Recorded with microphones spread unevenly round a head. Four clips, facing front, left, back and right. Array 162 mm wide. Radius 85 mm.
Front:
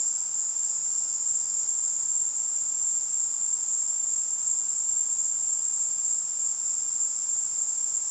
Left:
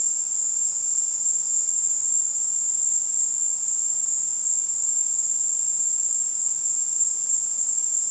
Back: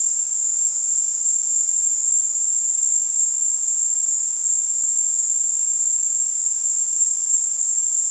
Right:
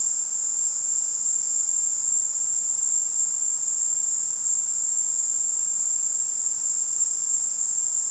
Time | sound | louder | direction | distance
0.0 | an insect | even, back 4 dB | 155° left | 0.9 m